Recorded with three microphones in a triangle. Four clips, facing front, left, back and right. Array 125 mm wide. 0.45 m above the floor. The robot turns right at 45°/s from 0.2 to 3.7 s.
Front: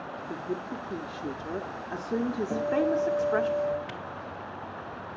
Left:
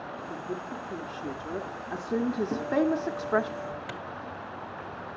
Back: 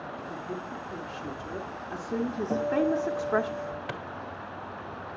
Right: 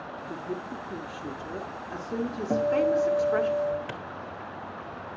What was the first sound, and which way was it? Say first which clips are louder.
A woman speaking: right 2 dB, front 5 dB; 25° right.